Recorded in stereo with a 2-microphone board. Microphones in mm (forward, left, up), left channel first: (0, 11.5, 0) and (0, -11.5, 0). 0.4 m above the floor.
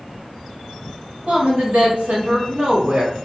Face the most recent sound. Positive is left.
turn(degrees=-50)  # may be behind; listen again after turning